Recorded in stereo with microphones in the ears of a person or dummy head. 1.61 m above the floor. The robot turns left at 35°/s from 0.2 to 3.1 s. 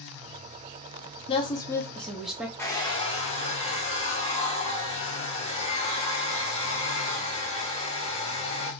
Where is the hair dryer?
15° left (ahead or behind), 0.8 m; by 8.7 s 35° left (ahead or behind), 0.8 m.